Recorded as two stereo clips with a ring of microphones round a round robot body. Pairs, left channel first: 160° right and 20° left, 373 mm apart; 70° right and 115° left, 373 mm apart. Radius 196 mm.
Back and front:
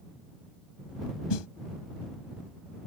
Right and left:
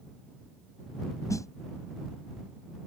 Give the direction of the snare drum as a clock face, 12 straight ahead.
5 o'clock.